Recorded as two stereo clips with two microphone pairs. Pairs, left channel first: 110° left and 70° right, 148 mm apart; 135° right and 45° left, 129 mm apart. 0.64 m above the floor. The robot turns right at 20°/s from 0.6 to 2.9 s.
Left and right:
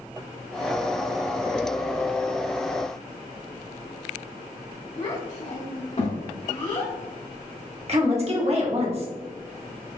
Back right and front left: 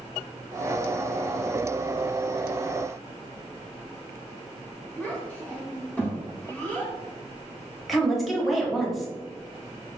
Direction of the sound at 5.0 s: 145° left.